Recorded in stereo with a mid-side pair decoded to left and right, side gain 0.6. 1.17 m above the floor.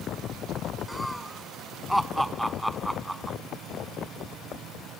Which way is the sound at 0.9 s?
10° left.